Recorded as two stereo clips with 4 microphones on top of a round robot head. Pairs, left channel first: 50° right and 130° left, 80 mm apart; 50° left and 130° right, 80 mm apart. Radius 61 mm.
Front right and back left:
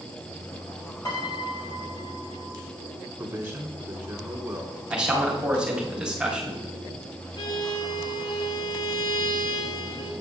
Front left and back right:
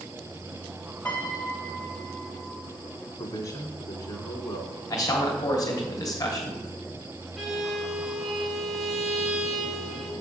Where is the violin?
40° right, 1.5 m.